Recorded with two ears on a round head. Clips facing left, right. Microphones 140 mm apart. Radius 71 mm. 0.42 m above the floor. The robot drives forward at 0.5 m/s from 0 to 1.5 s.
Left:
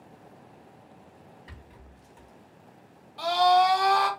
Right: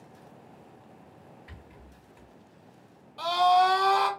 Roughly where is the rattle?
Left.